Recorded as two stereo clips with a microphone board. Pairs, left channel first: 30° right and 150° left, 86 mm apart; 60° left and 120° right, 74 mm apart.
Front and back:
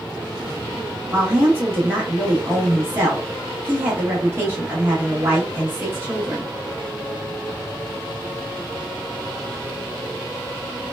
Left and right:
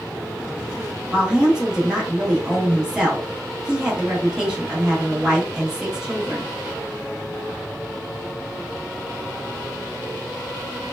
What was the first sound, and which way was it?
A woman speaking, 170° left.